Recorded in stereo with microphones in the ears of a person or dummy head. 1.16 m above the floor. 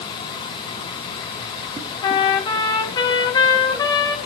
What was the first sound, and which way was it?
A trumpet, 25° left (ahead or behind).